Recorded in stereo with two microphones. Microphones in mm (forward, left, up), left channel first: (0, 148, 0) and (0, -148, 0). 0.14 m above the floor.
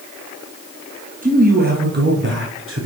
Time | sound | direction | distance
1.2 | a man speaking | 30° right (ahead or behind) | 2 m